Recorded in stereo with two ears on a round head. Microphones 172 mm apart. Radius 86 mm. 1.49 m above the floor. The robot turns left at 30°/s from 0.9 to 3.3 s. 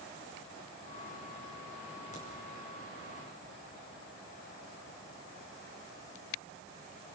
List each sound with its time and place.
2.1 s a crack: 40° left (ahead or behind), 6 m; by 2.2 s 45° left (ahead or behind), 6 m